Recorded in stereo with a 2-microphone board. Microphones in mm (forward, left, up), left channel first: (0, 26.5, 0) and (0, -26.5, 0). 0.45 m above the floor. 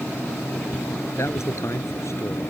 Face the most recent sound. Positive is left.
turn(degrees=65)  # may be behind; listen again after turning